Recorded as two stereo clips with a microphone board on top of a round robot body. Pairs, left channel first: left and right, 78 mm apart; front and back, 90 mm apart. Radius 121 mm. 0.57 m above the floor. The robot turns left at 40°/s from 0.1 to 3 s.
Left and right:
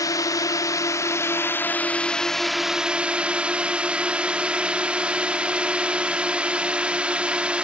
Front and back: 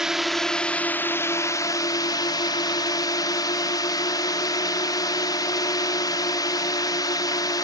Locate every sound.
0.0 s a drone: 100° left; by 7.7 s 20° right